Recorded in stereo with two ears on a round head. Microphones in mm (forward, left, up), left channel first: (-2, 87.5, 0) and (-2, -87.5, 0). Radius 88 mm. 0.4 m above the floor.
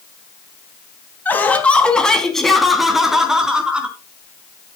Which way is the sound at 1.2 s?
10° left (ahead or behind).